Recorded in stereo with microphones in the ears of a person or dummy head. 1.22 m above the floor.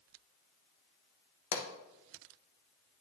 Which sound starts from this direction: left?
A pop, at 1.5 s.